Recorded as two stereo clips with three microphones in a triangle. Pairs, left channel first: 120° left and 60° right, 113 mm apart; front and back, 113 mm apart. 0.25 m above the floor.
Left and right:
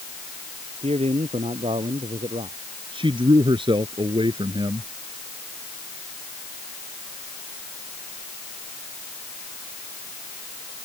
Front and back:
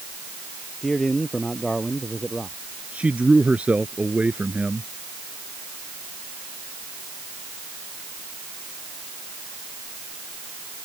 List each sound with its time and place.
0.8 s a man speaking: 85° right
2.9 s a man speaking: 100° right